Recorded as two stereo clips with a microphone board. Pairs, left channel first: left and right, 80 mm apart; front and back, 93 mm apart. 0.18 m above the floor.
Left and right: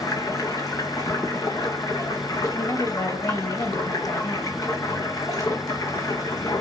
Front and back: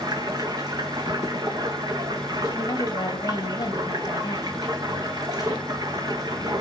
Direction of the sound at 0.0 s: 135° left.